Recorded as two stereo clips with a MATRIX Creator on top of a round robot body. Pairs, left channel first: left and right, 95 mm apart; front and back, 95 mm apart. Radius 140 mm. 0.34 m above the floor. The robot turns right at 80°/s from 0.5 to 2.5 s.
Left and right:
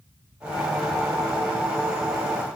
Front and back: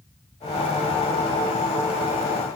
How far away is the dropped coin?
No dropped coin in this recording.